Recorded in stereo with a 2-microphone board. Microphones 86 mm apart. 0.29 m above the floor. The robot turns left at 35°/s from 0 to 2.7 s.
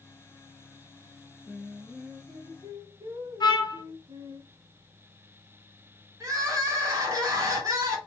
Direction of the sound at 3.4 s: 60° left (ahead or behind).